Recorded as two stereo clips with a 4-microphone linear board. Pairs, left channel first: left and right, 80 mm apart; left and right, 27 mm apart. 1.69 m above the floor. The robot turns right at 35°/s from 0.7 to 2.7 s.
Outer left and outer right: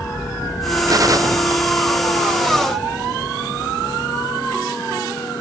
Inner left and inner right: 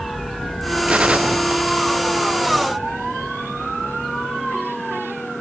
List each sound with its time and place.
0.9 s a gunshot: 50° right (ahead or behind), 0.6 m; by 2.5 s 20° right (ahead or behind), 0.6 m